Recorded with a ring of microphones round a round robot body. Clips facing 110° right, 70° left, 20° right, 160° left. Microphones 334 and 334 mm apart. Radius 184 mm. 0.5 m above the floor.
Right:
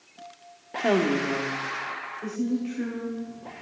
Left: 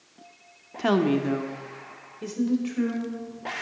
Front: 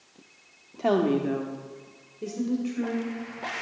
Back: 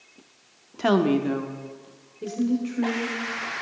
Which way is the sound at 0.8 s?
125° left.